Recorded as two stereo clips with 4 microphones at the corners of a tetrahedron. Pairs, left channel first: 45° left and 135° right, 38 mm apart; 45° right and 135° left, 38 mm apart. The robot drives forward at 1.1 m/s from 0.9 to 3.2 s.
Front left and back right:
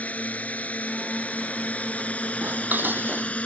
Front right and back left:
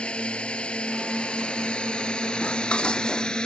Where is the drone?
10° left; by 3.5 s 15° left.